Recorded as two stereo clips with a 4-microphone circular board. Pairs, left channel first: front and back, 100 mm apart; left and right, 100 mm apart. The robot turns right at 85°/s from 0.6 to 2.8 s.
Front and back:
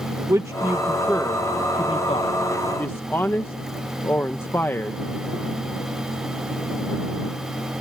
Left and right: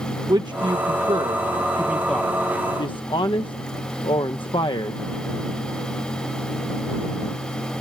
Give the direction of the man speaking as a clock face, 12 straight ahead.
4 o'clock.